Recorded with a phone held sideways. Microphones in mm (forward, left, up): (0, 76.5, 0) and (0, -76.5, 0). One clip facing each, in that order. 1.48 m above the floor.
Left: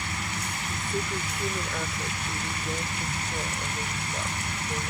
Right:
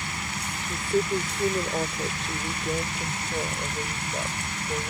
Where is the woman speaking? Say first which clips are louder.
Right 8 dB; 30° right (ahead or behind); by 4.9 s 20° right (ahead or behind).